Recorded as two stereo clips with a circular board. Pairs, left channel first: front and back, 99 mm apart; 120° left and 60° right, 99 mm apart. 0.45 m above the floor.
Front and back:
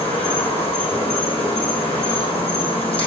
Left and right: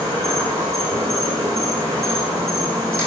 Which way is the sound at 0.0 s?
Straight ahead.